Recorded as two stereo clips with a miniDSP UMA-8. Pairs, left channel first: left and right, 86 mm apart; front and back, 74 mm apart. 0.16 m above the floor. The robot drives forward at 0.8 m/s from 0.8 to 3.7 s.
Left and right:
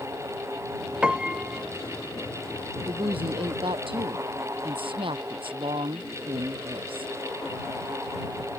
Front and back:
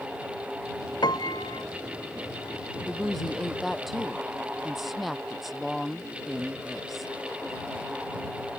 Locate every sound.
1.0 s a piano: 10° right; by 1.6 s 15° right
2.8 s a woman speaking: 85° right; by 7.1 s 90° right